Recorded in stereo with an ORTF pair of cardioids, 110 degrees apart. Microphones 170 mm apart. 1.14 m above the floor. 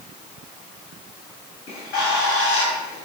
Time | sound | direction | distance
1.7 | a bird | 65° left | 2 m